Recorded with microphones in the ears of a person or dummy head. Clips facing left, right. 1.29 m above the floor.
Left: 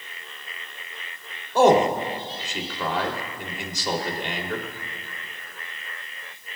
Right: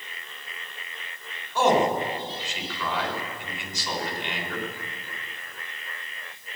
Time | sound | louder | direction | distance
1.6 | a man speaking | left 4 dB | 50° left (ahead or behind) | 2.5 m